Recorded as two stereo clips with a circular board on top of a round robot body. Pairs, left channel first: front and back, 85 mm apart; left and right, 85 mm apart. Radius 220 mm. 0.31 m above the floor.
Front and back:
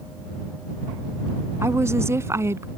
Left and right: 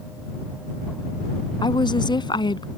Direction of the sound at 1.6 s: 120° left.